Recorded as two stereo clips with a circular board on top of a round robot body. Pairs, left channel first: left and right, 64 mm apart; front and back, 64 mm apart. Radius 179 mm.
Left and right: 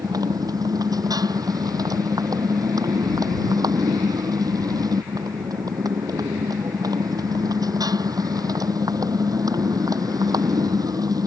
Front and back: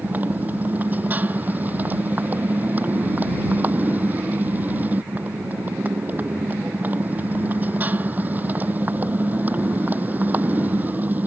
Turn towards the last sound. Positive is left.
turn(degrees=-115)